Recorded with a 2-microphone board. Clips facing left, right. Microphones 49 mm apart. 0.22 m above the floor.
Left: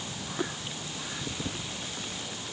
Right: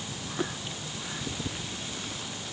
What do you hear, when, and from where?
Only background noise.